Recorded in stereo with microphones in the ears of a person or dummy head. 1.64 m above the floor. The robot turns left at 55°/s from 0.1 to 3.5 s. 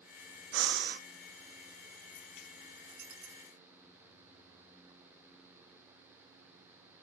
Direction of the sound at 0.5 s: 80° right.